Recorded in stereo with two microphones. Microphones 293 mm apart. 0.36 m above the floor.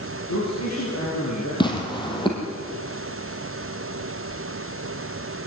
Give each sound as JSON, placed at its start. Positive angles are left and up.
{"t": 0.3, "sound": "a man speaking", "side_deg": 75, "distance_m": 7.0}
{"t": 1.6, "sound": "tearing paper", "side_deg": 15, "distance_m": 4.0}